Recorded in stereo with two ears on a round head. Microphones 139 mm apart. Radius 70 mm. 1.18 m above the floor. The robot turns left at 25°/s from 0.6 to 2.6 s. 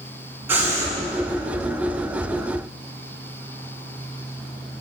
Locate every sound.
0.5 s breathing: 15° right (ahead or behind), 7.5 m; by 0.9 s 20° right (ahead or behind), 7.5 m